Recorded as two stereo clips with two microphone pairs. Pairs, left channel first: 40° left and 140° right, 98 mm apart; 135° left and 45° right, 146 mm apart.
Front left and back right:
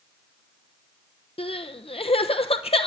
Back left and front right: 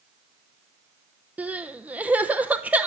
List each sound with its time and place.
1.4 s crying: 40° left, 0.7 m